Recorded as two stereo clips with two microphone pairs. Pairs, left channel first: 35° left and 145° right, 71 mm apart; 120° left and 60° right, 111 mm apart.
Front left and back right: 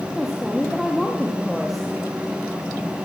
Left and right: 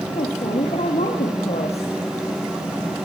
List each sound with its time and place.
0.1 s a woman speaking: 125° left, 4 m